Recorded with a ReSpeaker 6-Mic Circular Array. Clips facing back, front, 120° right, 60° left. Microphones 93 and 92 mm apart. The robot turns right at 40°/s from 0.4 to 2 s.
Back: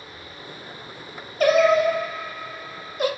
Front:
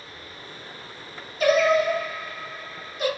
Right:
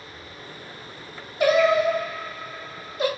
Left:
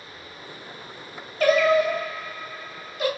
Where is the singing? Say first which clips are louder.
Back 3 dB, even; 170° left, 0.7 m; by 3.1 s 165° right, 0.7 m.